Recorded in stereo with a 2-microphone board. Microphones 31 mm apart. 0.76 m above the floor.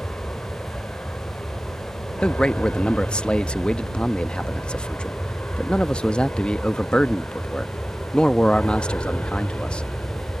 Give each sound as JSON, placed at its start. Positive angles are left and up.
{"t": 0.0, "sound": "an aircraft", "side_deg": 55}
{"t": 2.2, "sound": "a man speaking", "side_deg": 35}